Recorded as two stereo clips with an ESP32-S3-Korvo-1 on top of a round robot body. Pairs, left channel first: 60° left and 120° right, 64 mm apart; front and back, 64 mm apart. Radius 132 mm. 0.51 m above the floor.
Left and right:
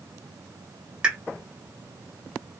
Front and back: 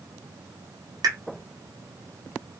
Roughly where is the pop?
Behind.